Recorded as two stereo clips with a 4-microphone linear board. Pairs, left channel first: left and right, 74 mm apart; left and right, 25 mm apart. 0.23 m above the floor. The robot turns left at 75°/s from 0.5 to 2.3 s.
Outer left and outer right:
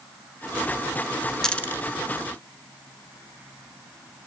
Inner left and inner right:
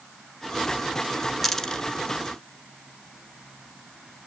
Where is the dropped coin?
10° left (ahead or behind), 1.0 m; by 1.9 s 40° left (ahead or behind), 1.0 m.